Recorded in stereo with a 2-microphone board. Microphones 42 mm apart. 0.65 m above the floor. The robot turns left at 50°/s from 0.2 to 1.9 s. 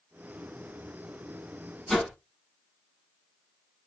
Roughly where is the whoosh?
Centre.